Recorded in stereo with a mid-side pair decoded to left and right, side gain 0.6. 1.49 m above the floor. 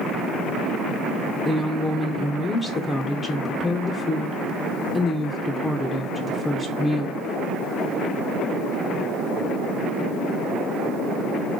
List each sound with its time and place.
1.4 s a woman speaking: 20° left, 0.6 m